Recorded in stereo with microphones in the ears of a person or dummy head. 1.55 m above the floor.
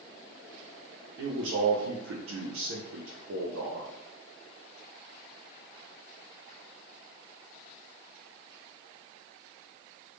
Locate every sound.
1.2 s a man speaking: 75° right (ahead or behind), 0.5 m